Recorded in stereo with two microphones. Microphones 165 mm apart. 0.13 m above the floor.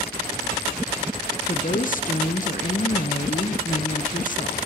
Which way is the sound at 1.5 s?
55° left (ahead or behind).